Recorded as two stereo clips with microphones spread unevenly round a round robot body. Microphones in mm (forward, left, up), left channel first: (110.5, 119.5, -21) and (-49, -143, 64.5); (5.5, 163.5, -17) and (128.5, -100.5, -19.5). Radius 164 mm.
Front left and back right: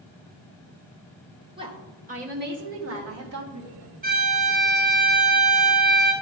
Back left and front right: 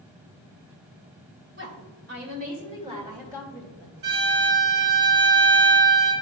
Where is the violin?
55° right, 1.7 m.